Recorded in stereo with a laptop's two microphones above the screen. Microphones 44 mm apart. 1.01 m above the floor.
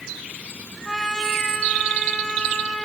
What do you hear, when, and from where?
0.8 s a trumpet: 5° left (ahead or behind), 2 m